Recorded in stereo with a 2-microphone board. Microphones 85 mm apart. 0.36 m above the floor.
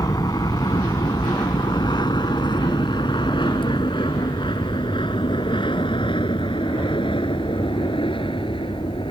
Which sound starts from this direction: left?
An aircraft, at 0.0 s.